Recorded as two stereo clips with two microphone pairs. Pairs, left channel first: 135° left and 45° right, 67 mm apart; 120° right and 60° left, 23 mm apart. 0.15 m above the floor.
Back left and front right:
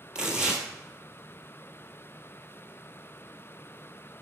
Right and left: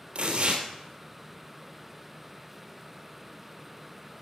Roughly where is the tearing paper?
Ahead left.